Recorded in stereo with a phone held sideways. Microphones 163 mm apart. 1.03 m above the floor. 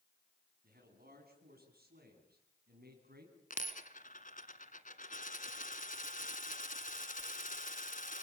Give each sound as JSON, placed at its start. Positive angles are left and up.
{"t": 0.6, "sound": "a man speaking", "side_deg": -70, "distance_m": 9.5}
{"t": 3.5, "sound": "a dropped coin", "side_deg": 55, "distance_m": 1.8}